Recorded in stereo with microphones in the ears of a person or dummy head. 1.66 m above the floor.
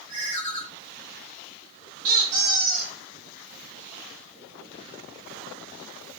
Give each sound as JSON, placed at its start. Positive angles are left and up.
{"t": 0.1, "sound": "a ringtone", "side_deg": -35, "distance_m": 2.0}
{"t": 2.0, "sound": "a squeak", "side_deg": -40, "distance_m": 1.5}